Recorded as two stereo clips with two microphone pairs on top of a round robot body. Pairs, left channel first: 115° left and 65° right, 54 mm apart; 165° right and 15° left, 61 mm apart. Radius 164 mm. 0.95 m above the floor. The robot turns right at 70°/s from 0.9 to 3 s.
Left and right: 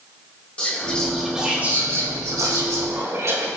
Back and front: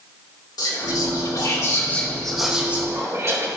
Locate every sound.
0.6 s whispering: 175° right, 2.5 m; by 3.5 s 30° right, 2.5 m